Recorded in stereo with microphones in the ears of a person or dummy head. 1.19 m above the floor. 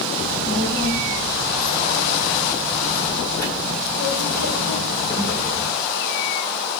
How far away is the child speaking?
About 4 m.